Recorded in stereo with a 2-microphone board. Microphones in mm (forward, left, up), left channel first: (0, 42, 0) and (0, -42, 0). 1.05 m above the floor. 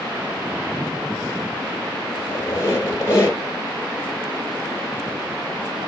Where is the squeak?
35° left (ahead or behind), 2 m.